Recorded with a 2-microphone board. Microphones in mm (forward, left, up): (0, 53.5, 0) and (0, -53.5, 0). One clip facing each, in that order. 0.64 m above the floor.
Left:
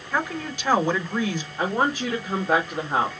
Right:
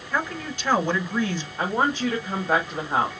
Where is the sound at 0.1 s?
15° left (ahead or behind), 3 m.